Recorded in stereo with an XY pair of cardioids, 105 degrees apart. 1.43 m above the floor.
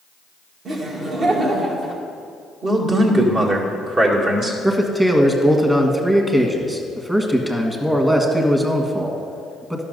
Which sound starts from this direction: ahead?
A man speaking, at 4.6 s.